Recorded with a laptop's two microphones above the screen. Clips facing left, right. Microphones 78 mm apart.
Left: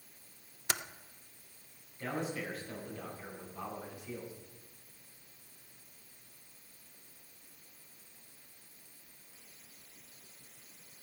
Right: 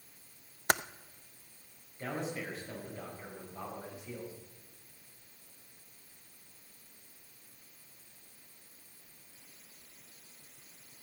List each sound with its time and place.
0.7 s typing on a keyboard: 50° right (ahead or behind), 0.5 m
2.0 s a man speaking: 25° right (ahead or behind), 5 m